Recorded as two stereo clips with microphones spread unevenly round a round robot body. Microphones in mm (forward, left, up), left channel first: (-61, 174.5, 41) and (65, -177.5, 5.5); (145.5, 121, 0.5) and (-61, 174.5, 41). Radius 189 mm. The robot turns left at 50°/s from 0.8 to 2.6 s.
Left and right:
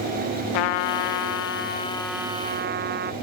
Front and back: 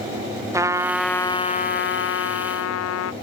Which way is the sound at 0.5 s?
85° left.